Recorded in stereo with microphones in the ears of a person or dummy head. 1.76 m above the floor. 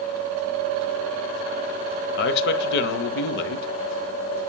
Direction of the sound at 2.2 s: 50° left (ahead or behind).